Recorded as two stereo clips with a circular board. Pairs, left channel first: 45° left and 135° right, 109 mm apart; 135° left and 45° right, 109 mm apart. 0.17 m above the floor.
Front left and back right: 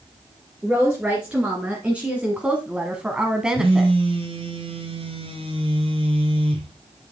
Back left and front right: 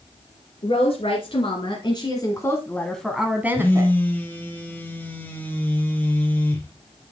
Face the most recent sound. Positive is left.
turn(degrees=-155)